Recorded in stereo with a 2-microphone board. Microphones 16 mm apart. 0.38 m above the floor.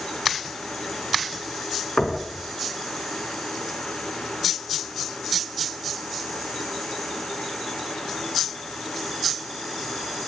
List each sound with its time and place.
2.0 s knocking: 75° left (ahead or behind), 4 m